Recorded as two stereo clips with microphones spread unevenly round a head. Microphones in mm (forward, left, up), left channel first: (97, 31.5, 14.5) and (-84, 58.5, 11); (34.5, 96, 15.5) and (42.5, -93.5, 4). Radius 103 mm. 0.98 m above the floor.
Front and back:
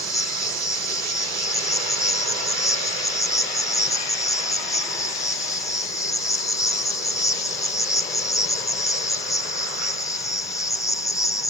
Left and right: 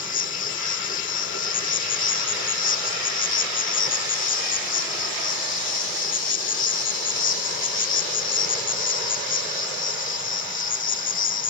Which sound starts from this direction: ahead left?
An insect, at 0.0 s.